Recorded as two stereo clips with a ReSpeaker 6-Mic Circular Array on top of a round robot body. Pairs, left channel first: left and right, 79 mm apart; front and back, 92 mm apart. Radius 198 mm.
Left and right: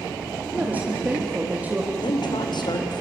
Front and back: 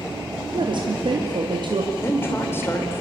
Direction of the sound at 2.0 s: 65° left.